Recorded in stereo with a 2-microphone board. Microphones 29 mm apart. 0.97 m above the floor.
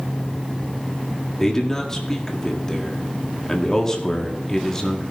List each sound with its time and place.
1.4 s a man speaking: 15° left (ahead or behind), 1.8 m